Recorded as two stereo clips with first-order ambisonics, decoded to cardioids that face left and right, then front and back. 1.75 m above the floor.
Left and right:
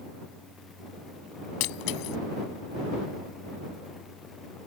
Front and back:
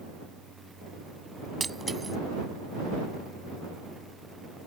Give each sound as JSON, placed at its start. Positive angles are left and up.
{"t": 1.6, "sound": "breaking glass", "azimuth_deg": 100}